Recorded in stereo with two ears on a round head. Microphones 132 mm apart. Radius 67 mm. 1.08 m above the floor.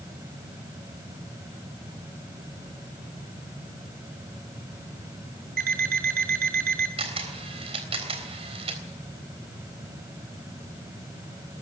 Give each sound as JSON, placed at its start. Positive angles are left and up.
{"t": 5.6, "sound": "an alarm clock", "side_deg": -70, "distance_m": 3.0}
{"t": 7.0, "sound": "a camera shutter", "side_deg": -45, "distance_m": 3.5}